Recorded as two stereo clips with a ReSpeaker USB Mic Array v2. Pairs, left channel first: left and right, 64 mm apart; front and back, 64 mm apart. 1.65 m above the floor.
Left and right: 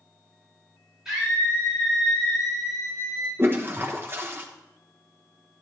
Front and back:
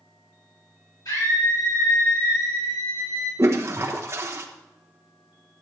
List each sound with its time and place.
1.1 s a scream: 10° right, 6.5 m; by 3.3 s straight ahead, 7.5 m
3.4 s a toilet flushing: 140° right, 1.2 m